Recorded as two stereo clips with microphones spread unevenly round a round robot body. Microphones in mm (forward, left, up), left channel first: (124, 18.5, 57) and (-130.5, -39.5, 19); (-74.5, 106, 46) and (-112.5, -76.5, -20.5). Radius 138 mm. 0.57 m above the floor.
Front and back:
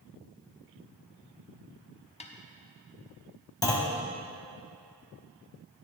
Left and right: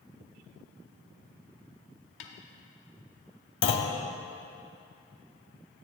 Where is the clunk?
90° left, 1.1 m.